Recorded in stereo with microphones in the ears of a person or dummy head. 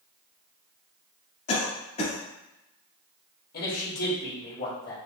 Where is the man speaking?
55° left (ahead or behind), 2 m.